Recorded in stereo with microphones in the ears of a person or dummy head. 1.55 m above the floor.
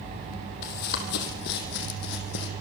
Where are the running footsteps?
50° left (ahead or behind), 2.5 m; by 2.5 s 60° left (ahead or behind), 3 m.